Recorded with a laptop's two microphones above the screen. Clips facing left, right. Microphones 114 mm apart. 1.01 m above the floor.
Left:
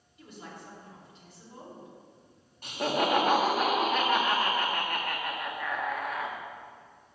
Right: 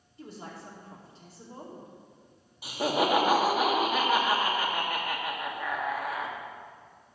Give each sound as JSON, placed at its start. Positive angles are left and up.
{"t": 0.2, "sound": "a woman speaking", "side_deg": -40, "distance_m": 2.5}
{"t": 2.6, "sound": "laughter", "side_deg": -5, "distance_m": 1.9}